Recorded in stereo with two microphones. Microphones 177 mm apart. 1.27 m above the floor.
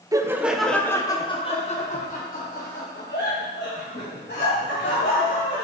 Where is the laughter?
20° right (ahead or behind), 0.8 m; by 5.6 s 70° left (ahead or behind), 2.5 m.